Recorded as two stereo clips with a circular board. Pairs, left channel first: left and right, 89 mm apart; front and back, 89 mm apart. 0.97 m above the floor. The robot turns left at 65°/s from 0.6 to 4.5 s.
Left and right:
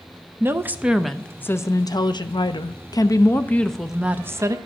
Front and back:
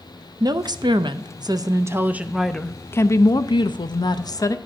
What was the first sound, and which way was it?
A woman speaking, 150° right.